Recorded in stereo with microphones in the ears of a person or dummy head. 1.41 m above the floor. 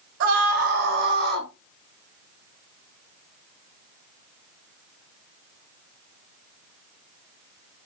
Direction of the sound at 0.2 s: 55° right (ahead or behind).